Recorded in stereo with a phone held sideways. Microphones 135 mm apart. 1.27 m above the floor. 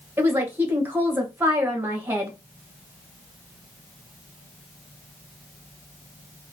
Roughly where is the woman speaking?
Centre.